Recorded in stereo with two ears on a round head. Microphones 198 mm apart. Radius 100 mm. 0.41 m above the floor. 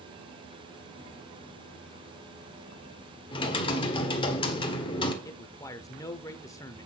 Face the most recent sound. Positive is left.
turn(degrees=15)  # may be behind; listen again after turning